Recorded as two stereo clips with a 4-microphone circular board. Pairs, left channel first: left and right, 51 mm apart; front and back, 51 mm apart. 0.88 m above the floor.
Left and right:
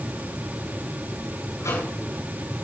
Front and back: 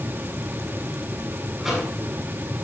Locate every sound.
1.6 s a microwave: 90° left, 7.5 m